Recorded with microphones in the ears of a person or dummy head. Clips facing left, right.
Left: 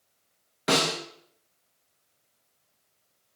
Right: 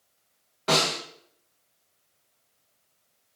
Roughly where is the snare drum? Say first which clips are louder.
Even; left.